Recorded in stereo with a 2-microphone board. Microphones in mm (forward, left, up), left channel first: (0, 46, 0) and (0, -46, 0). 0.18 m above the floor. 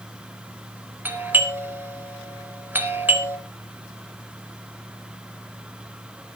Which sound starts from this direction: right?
A doorbell, at 1.1 s.